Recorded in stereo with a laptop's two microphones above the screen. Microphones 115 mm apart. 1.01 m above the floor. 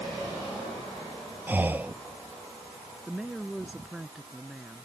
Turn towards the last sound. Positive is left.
turn(degrees=-5)  # may be behind; listen again after turning